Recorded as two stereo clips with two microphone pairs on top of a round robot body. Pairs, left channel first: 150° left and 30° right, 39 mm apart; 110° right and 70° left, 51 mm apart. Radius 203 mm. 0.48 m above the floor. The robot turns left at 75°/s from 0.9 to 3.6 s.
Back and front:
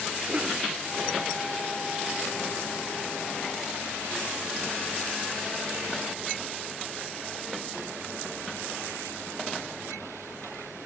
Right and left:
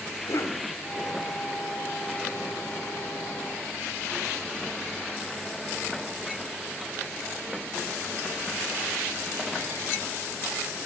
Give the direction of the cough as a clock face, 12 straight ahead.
3 o'clock.